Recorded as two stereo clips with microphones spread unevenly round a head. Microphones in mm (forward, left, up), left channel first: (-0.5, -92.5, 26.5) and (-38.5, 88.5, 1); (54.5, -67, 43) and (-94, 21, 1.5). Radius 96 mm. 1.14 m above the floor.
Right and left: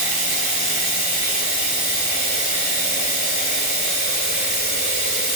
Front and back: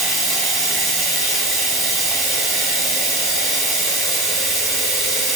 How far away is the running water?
About 2.5 m.